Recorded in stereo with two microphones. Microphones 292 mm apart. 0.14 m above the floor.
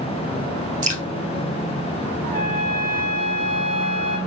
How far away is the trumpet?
About 2.5 m.